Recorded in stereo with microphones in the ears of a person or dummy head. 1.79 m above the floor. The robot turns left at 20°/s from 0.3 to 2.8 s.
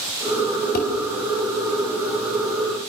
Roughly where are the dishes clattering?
Left.